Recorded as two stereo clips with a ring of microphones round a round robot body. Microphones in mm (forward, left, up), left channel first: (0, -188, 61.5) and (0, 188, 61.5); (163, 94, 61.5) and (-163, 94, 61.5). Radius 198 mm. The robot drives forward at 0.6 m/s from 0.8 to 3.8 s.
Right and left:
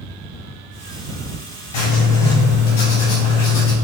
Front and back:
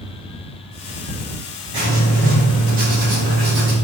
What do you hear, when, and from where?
1.7 s writing: 105° right, 6 m; by 3.8 s 115° right, 6 m